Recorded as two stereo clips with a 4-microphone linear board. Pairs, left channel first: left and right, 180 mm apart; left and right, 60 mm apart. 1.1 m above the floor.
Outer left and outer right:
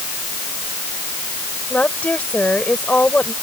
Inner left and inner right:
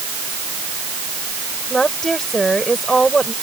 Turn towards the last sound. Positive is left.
turn(degrees=10)  # may be behind; listen again after turning